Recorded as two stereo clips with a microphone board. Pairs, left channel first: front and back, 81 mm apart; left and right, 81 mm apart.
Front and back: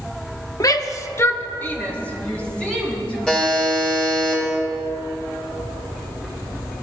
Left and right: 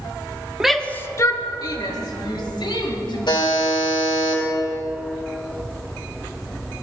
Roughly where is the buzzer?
Left.